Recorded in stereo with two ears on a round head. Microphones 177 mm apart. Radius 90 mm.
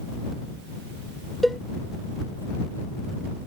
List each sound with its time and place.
1.4 s a cowbell: centre (ahead or behind)